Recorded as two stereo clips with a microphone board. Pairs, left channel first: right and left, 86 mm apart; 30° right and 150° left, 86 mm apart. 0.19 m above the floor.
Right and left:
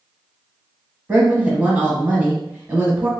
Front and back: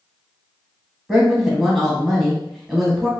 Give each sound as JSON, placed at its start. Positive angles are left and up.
{"t": 1.1, "sound": "a woman speaking", "azimuth_deg": 70, "distance_m": 1.0}